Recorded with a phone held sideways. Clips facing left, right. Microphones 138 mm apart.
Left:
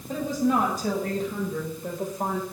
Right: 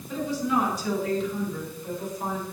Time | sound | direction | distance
0.1 | a woman speaking | 50° left (ahead or behind) | 7.5 m